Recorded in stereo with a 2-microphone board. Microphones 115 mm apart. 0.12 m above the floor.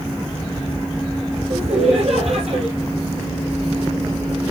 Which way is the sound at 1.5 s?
65° right (ahead or behind).